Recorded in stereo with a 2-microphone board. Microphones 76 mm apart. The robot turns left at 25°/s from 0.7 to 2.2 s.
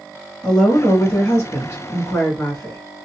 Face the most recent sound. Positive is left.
turn(degrees=80)